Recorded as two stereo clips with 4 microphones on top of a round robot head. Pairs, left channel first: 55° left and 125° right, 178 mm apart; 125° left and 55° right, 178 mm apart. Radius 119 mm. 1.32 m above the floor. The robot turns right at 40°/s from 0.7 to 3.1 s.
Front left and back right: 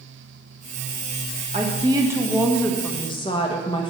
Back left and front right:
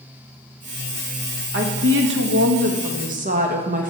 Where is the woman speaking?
70° right, 1.4 m; by 3.9 s 10° right, 1.4 m.